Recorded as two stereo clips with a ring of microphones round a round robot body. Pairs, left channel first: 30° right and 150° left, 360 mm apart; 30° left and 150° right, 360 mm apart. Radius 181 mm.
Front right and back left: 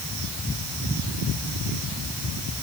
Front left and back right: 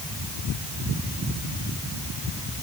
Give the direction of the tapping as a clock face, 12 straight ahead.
No tapping in this recording.